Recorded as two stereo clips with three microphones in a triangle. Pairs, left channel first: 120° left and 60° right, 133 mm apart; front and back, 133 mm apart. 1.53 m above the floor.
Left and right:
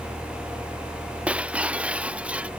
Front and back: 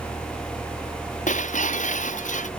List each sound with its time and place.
1.3 s breaking glass: 20° left